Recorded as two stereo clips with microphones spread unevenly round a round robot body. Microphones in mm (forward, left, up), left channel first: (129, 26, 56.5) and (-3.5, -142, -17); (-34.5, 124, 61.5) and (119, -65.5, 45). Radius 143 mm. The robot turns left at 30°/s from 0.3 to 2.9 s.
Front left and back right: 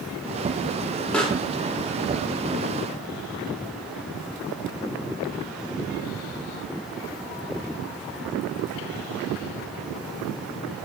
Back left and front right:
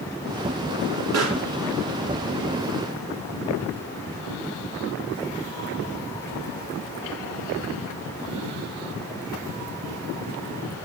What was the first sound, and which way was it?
A pop, 35° right.